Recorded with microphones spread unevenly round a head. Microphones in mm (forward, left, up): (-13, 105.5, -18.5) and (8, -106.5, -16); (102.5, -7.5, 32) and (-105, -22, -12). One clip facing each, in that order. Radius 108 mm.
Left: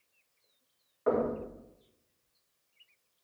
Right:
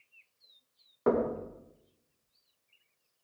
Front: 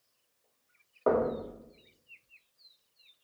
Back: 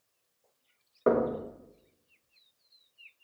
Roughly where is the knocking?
Right.